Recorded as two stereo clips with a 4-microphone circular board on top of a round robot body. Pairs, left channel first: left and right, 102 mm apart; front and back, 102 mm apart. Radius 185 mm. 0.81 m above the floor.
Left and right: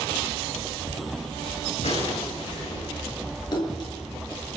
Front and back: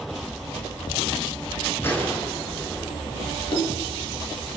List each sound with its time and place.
1.8 s a gunshot: 70° left, 5.5 m
3.5 s a splash: 40° left, 6 m